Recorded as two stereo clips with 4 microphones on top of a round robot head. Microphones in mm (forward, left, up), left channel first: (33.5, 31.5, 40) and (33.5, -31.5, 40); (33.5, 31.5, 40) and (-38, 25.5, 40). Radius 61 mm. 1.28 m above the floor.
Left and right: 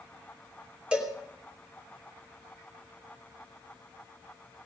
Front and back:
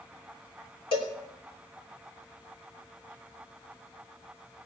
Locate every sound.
0.9 s a cowbell: 15° right, 3 m